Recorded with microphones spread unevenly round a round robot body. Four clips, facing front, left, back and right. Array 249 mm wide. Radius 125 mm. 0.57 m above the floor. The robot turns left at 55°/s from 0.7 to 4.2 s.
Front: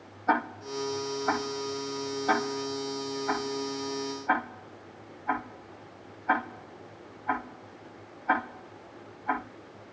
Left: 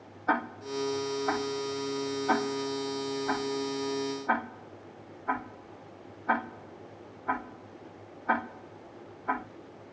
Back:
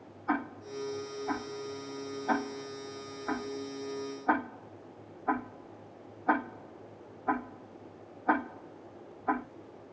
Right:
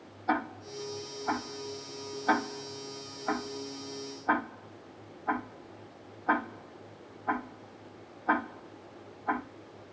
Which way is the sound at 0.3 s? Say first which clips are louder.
Left 2 dB, front 5 dB; 40° left.